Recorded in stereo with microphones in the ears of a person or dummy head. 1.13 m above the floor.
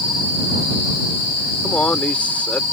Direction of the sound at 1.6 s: 10° left (ahead or behind).